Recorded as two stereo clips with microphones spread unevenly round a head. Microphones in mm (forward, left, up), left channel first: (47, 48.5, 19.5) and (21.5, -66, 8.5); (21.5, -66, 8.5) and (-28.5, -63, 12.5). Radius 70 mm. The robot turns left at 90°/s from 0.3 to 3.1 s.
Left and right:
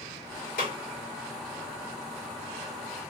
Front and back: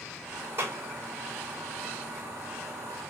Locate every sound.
0.6 s a clap: 115° left, 2 m; by 0.8 s 95° left, 2 m